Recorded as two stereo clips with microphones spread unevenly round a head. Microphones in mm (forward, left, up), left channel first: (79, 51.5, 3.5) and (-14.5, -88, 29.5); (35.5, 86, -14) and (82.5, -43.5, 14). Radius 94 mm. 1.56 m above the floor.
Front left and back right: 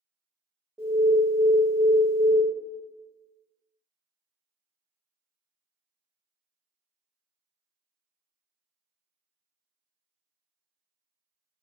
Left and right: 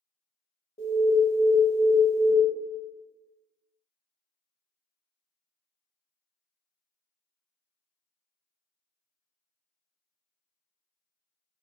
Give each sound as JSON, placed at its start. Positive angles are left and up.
{"t": 0.8, "sound": "an alarm", "azimuth_deg": 150, "distance_m": 0.5}